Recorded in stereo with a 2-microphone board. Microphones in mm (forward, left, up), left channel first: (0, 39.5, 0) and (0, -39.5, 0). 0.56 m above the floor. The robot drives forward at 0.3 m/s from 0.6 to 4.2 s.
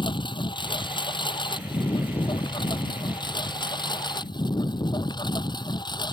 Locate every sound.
0.0 s a lawn mower: 80° left; by 6.1 s 65° left (ahead or behind)